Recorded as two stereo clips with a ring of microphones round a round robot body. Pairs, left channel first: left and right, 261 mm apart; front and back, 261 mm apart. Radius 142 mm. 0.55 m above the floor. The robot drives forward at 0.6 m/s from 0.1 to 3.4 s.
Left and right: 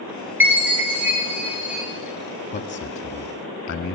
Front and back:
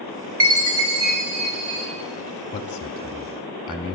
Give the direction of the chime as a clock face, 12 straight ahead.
6 o'clock.